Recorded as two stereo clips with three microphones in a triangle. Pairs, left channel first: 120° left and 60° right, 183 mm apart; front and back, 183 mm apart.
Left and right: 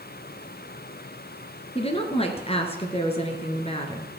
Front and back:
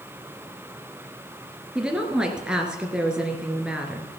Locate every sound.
1.8 s a woman speaking: 100° left, 1.7 m